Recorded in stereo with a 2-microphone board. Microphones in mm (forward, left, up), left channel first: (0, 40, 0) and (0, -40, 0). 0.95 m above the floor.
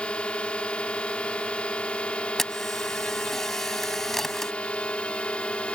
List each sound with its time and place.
0.0 s a drone: 15° left (ahead or behind)
2.4 s a camera shutter: 5° left (ahead or behind)